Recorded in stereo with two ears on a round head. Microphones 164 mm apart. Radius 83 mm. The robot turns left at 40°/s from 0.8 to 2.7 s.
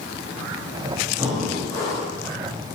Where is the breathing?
170° right, 1.2 m; by 2.1 s 150° left, 1.2 m.